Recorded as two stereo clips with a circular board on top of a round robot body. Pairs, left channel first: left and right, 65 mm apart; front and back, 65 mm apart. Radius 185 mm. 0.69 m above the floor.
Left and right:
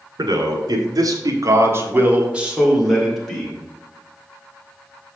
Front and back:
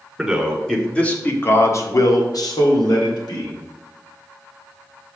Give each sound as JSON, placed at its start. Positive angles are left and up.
{"t": 0.2, "sound": "a man speaking", "azimuth_deg": -95, "distance_m": 2.5}